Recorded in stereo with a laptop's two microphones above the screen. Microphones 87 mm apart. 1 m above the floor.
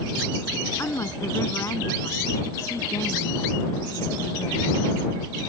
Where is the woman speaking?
35° left (ahead or behind); by 5.3 s 45° left (ahead or behind).